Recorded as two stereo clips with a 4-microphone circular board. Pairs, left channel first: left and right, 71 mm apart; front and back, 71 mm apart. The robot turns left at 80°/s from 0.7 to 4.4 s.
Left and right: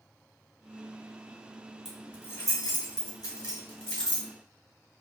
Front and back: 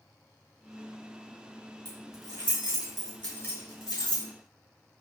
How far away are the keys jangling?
About 1.6 m.